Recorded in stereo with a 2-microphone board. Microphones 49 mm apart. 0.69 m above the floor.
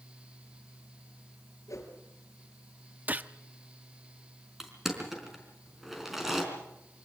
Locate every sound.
1.7 s a whoosh: 85° left, 3.5 m
3.1 s a gunshot: 35° right (ahead or behind), 0.7 m
4.6 s crushing: 5° right (ahead or behind), 4.5 m